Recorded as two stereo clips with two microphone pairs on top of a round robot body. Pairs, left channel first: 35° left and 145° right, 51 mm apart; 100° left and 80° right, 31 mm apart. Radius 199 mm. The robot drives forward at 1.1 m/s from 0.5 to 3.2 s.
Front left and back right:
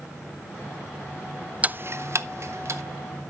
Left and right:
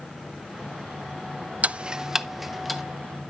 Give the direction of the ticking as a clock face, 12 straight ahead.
3 o'clock.